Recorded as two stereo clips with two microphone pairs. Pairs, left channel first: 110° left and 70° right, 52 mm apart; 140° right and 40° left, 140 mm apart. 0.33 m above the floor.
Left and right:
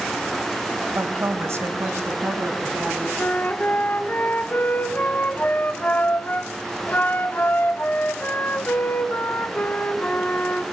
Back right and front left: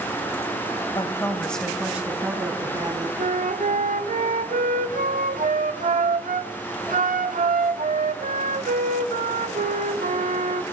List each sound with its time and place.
0.9 s a woman speaking: 95° right, 1.3 m; by 3.1 s 20° right, 3 m
3.2 s a flute: 55° left, 0.6 m